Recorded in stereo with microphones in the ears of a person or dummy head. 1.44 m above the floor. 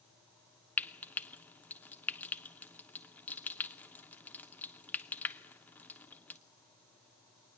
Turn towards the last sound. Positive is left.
turn(degrees=15)  # may be behind; listen again after turning